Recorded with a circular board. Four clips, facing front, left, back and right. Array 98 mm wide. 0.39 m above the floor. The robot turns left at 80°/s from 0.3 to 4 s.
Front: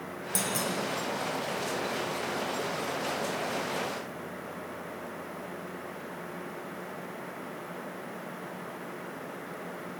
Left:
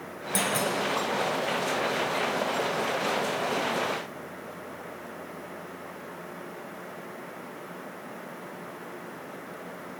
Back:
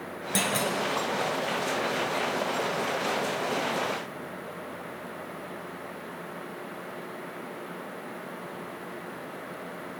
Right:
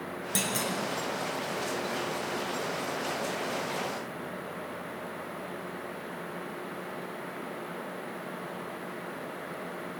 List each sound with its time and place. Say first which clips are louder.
0.3 s a clunk: left 6 dB, back 5 dB; 155° right, 1.9 m; by 0.7 s straight behind, 1.9 m